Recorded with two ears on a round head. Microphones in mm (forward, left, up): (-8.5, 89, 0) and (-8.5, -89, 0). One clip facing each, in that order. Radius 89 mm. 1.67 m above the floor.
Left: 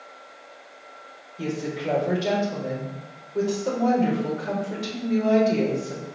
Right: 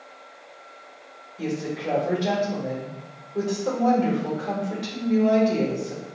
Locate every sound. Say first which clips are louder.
1.4 s a woman speaking: even; 5° left (ahead or behind), 4.5 m